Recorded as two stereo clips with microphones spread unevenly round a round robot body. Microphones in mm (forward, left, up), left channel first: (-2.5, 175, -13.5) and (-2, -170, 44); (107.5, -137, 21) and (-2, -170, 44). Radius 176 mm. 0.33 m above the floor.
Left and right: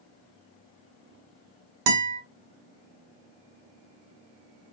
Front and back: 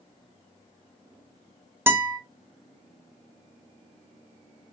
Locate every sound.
1.9 s a guitar: 85° right, 1.3 m